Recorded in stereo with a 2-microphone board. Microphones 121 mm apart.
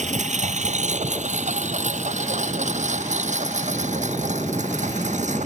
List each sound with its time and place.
0.0 s a lawn mower: 85° right